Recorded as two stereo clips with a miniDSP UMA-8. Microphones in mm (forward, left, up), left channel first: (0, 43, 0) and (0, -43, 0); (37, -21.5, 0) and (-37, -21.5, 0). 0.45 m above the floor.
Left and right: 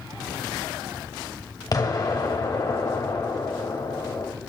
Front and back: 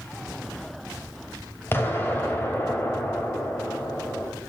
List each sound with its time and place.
1.7 s an explosion: 50° left, 2 m